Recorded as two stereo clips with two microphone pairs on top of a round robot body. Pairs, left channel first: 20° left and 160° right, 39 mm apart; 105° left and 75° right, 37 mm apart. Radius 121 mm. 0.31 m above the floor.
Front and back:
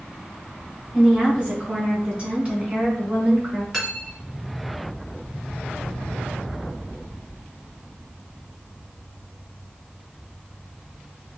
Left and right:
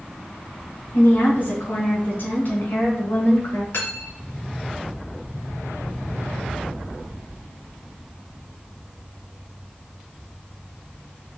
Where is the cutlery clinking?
125° left, 3 m.